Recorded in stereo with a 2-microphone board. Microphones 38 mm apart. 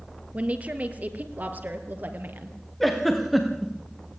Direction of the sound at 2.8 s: 5° left (ahead or behind).